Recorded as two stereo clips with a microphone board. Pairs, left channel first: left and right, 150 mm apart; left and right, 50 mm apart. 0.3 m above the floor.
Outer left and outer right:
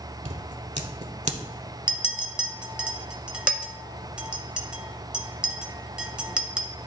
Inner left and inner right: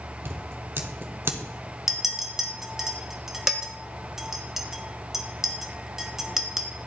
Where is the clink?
5° right (ahead or behind), 0.7 m.